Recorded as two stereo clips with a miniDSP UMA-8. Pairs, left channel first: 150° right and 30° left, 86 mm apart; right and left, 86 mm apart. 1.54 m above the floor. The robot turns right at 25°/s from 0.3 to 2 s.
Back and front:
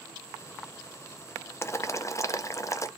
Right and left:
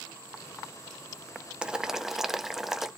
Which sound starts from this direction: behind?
Boiling, at 1.6 s.